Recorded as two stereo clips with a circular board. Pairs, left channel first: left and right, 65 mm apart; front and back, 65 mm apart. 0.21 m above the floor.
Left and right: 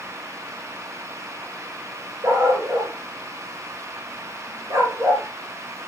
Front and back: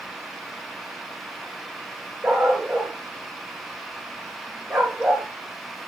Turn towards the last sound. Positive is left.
turn(degrees=-115)